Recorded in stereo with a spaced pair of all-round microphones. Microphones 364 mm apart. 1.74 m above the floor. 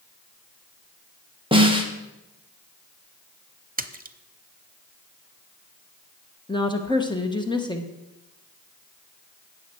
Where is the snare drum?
15° right (ahead or behind), 1.5 m.